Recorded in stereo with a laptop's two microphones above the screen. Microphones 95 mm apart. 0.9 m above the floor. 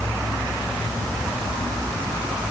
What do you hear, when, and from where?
Only background noise.